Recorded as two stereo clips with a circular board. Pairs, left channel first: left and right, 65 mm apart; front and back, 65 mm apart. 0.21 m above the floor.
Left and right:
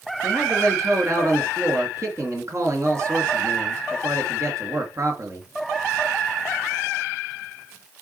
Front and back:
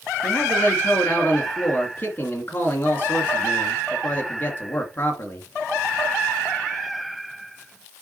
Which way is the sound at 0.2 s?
55° right.